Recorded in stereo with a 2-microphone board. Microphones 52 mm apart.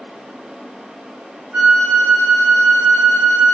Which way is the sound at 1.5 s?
35° right (ahead or behind).